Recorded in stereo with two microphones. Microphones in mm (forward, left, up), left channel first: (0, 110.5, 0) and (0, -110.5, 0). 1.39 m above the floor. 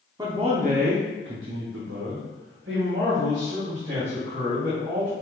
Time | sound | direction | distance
0.2 | a man speaking | 15° right (ahead or behind) | 0.7 m